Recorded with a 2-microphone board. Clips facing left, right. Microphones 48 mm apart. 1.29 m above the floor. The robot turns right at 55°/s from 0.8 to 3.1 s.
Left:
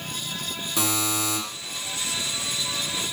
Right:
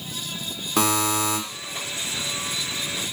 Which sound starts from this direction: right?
A buzzer, at 0.8 s.